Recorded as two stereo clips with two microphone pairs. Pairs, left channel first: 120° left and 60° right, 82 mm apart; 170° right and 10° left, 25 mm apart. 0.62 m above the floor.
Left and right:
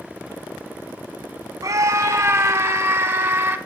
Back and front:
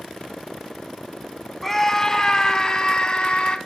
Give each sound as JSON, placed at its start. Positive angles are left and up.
{"t": 1.6, "sound": "a scream", "azimuth_deg": -90, "distance_m": 1.3}